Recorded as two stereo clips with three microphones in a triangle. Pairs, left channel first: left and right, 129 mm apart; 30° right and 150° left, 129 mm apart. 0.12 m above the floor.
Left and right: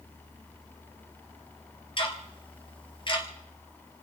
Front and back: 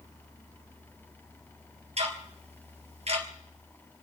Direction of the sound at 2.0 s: 130° left.